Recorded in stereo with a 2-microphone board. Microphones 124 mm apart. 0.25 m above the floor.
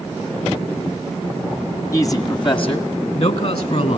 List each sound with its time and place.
1.9 s a man speaking: 25° left (ahead or behind), 1.8 m; by 4.0 s 65° left (ahead or behind), 3 m